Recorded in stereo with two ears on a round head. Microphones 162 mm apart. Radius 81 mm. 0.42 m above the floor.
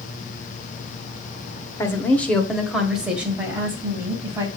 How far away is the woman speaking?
About 1.1 m.